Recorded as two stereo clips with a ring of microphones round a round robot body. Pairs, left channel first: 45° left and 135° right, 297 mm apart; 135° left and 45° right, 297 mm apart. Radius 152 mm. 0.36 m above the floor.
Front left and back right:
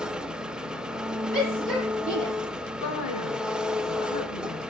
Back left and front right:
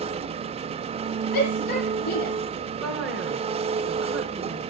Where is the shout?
130° left, 10 m.